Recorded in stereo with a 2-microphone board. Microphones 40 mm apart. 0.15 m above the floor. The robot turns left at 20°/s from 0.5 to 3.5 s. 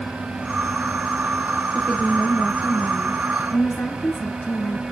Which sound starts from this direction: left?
A woman speaking, at 1.8 s.